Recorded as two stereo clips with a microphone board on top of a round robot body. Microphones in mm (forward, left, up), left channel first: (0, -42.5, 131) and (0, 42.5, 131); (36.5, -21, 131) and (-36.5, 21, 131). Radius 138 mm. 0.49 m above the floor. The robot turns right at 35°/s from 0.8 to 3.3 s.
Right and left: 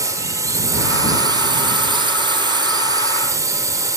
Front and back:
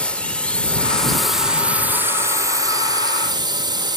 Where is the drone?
45° left; by 4.0 s 135° left.